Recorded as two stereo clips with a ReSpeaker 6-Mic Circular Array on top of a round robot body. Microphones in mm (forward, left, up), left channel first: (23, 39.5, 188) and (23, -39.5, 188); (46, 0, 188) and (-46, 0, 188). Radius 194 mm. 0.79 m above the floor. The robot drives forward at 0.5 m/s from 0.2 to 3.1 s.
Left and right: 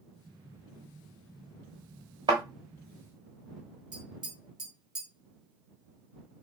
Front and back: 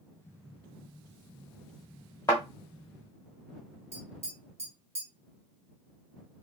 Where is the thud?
60° right, 0.8 m; by 2.4 s 70° right, 0.7 m.